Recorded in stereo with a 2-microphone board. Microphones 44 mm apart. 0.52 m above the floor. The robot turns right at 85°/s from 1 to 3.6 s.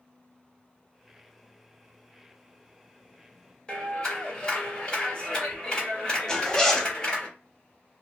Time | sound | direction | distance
3.7 | a clap | 25° left (ahead or behind) | 1.4 m
6.3 | a zipper | 15° left (ahead or behind) | 0.7 m